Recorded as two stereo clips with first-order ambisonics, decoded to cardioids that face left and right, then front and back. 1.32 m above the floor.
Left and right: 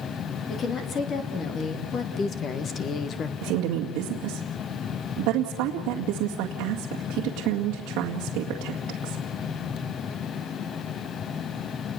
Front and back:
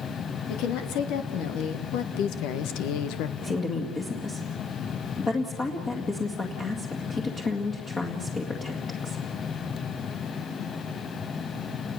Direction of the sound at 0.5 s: 30° left.